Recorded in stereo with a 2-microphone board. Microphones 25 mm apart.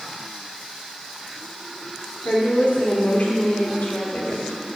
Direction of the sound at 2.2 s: 65° left (ahead or behind).